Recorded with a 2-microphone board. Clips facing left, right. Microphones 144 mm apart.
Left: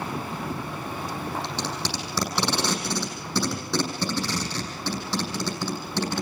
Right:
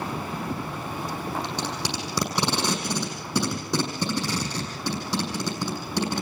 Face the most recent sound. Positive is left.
turn(degrees=-15)  # may be behind; listen again after turning